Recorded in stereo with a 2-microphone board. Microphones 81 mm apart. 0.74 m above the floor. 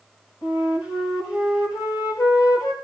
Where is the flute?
60° left (ahead or behind), 7 m.